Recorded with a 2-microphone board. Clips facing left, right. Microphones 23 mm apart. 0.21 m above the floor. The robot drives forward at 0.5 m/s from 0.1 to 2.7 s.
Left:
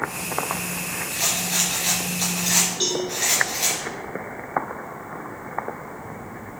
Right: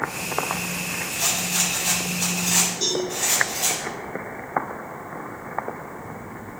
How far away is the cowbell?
About 4 m.